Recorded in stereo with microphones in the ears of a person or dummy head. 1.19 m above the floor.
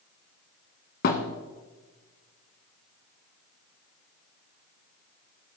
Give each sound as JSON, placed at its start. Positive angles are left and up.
{"t": 1.0, "sound": "a thud", "side_deg": 50, "distance_m": 1.7}